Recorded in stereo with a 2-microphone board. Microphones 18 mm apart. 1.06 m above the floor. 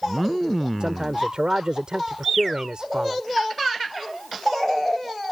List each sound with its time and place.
0.8 s a man speaking: 55° right (ahead or behind)